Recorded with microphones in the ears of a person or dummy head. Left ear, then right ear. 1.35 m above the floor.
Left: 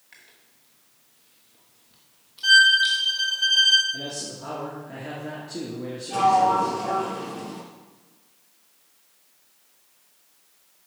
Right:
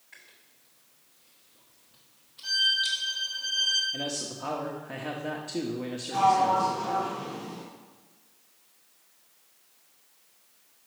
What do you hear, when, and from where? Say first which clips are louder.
0.1 s chewing: left 1 dB; 15° left (ahead or behind), 1.0 m
2.4 s a violin: left 10 dB; 50° left (ahead or behind), 1.1 m
3.9 s a man speaking: even; 45° right (ahead or behind), 0.9 m
6.1 s a sliding door: left 4 dB; 60° left (ahead or behind), 2.5 m